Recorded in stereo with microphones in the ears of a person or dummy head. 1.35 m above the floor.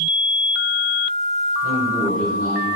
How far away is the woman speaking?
About 5 m.